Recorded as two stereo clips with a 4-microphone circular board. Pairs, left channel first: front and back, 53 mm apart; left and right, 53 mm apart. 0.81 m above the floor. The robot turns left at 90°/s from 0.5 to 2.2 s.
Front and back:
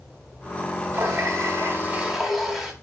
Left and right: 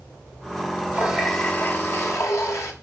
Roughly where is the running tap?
Behind right.